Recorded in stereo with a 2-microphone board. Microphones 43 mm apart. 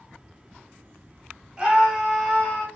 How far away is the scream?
About 1.4 m.